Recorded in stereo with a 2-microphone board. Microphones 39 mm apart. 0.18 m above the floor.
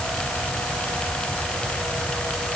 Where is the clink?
I don't hear a clink.